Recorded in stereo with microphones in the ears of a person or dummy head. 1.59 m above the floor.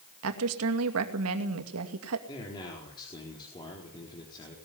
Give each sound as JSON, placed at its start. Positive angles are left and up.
{"t": 0.2, "sound": "a woman speaking", "side_deg": -85, "distance_m": 2.5}
{"t": 2.3, "sound": "a man speaking", "side_deg": 30, "distance_m": 4.0}